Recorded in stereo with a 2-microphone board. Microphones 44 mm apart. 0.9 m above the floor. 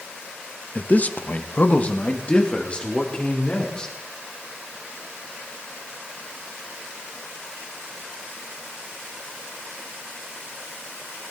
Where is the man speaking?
30° left (ahead or behind), 0.8 m; by 3.9 s 20° left (ahead or behind), 3 m.